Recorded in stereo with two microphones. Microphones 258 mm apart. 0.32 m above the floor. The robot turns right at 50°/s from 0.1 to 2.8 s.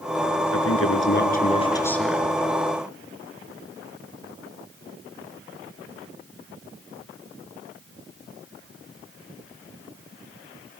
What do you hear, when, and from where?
0.5 s a man speaking: 105° left, 5 m; by 2.3 s 170° right, 5 m